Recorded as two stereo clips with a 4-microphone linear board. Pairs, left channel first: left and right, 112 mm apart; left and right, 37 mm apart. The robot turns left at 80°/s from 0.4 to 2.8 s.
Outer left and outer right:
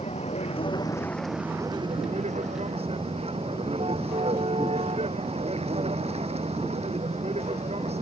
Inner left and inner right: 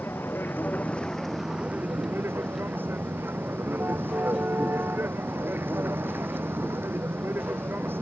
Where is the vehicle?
70° left (ahead or behind); by 8.0 s 65° right (ahead or behind).